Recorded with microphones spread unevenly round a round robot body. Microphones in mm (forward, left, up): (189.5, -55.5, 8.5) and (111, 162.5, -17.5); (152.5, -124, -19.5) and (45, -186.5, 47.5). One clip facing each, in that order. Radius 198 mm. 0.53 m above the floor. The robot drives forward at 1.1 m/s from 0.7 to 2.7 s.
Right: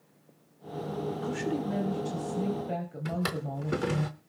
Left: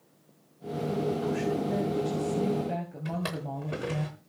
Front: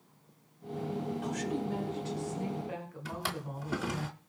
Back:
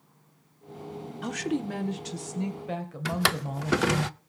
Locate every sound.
1.2 s a woman speaking: 120° right, 1.4 m; by 4.0 s 155° right, 2.5 m
3.0 s a drawer: 125° right, 0.6 m